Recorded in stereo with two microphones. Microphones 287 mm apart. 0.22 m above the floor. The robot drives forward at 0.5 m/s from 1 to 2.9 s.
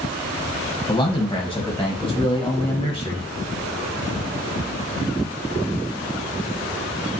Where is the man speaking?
15° left (ahead or behind), 1.2 m; by 3.3 s 20° left (ahead or behind), 1.1 m.